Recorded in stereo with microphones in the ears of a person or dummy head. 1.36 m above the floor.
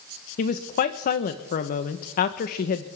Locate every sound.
0.4 s a woman speaking: 50° left (ahead or behind), 0.9 m